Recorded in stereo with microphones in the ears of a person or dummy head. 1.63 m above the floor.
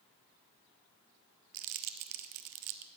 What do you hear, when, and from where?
1.5 s crumpling: 40° right (ahead or behind), 0.7 m